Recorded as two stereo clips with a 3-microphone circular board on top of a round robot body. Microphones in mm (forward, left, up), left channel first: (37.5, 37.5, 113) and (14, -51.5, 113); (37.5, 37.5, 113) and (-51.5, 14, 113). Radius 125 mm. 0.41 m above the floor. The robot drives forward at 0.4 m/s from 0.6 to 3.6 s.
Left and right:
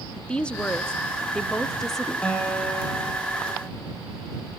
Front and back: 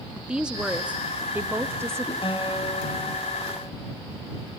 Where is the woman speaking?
135° left, 1.4 m; by 2.1 s 160° left, 1.6 m.